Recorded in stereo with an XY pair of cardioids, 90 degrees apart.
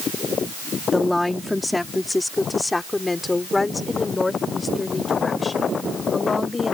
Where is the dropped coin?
No dropped coin in this recording.